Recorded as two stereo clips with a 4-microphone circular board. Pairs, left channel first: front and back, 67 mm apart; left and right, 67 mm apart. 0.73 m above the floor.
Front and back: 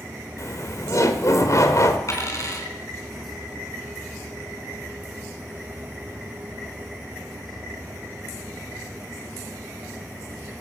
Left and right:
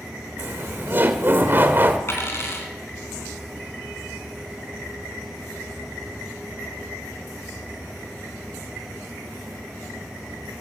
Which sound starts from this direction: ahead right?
Laughter, at 0.4 s.